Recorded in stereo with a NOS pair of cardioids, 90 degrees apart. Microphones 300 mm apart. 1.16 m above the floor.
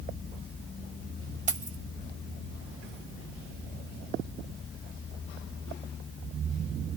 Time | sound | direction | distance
1.5 | keys jangling | 25° right | 1.5 m